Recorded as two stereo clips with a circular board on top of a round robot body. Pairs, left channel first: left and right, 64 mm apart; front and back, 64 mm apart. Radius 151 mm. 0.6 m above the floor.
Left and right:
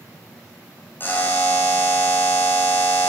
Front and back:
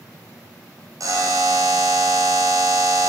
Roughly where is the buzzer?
Behind left.